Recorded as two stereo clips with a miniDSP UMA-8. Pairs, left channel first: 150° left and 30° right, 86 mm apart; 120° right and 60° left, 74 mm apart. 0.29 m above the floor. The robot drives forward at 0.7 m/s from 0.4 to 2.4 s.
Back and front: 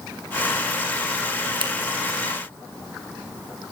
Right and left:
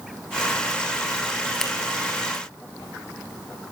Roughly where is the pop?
No pop in this recording.